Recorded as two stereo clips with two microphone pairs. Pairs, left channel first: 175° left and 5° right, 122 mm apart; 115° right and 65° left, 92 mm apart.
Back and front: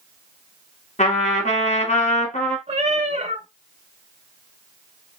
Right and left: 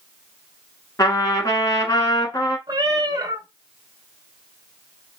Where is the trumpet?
165° right, 1.3 m.